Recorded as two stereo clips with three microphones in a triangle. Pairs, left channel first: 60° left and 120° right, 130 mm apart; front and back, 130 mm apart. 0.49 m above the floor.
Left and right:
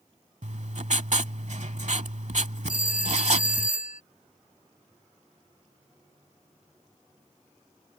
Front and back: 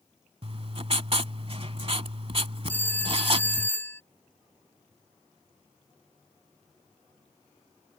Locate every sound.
0.4 s writing: 140° right
2.7 s a phone ringing: 75° left